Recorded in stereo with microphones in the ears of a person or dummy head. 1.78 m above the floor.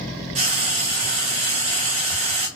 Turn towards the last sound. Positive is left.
turn(degrees=-35)  # may be behind; listen again after turning